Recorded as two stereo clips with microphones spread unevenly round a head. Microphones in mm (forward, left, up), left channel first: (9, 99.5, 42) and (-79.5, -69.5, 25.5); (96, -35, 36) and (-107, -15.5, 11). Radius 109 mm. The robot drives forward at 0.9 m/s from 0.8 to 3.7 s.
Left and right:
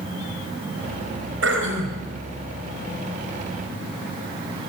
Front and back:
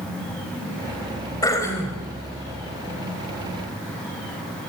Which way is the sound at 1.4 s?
80° right.